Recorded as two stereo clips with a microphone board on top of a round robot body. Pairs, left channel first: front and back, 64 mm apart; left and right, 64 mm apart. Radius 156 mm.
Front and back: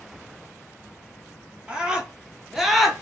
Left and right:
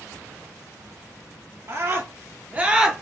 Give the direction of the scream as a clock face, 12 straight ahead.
4 o'clock.